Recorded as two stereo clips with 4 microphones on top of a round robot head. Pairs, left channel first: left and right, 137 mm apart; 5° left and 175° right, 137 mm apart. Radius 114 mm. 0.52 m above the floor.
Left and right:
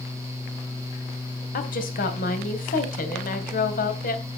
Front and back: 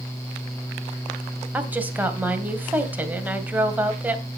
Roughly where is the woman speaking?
Left.